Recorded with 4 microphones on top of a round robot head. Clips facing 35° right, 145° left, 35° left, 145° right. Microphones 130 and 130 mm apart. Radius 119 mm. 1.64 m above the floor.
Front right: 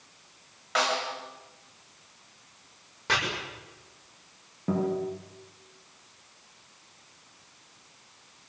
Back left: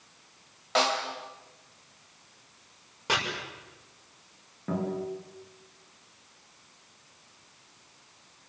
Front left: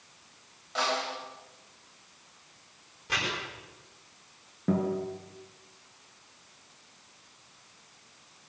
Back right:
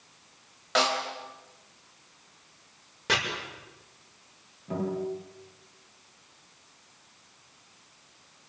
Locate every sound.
0.8 s a snare drum: 150° right, 4 m
3.1 s chopping: 135° right, 7.5 m
4.7 s a guitar: 40° left, 9 m